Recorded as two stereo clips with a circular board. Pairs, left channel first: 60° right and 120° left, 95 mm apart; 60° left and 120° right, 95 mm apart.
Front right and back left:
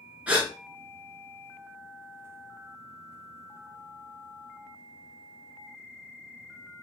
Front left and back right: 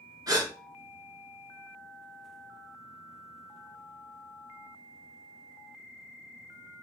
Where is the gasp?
165° right, 0.9 m.